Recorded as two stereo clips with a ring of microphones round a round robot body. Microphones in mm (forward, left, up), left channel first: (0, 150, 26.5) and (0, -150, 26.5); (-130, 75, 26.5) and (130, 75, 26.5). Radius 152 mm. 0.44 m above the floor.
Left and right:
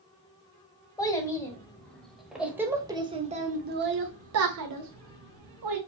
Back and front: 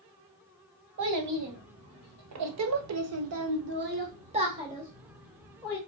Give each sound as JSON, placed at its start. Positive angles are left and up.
{"t": 1.0, "sound": "a child speaking", "azimuth_deg": 10, "distance_m": 1.9}